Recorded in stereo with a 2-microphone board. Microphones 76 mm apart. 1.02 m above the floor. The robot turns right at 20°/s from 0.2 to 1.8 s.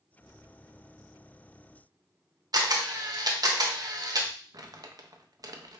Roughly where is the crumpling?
Right.